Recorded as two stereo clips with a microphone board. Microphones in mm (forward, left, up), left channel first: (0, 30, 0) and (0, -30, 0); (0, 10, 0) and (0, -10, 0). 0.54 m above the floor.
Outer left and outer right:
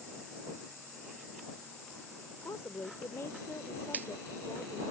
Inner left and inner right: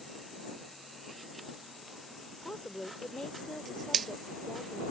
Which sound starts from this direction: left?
A woman speaking, at 2.4 s.